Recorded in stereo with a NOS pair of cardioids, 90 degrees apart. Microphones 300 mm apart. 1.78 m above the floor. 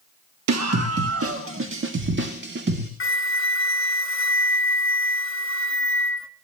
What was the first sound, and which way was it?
A scream, 65° right.